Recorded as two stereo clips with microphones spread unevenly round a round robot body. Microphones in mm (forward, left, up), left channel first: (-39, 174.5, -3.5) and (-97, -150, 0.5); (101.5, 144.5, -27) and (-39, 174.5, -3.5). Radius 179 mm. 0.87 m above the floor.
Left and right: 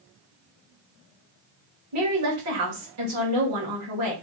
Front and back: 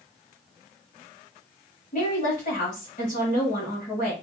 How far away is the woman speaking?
About 1.7 m.